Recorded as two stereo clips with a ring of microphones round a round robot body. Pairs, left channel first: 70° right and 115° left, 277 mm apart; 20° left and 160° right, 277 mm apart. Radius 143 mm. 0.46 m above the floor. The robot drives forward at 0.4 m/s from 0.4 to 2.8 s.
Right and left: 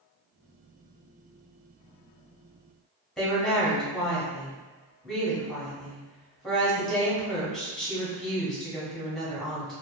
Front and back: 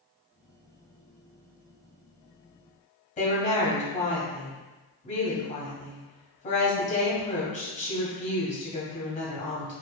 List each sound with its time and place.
3.2 s a woman speaking: 20° left, 1.1 m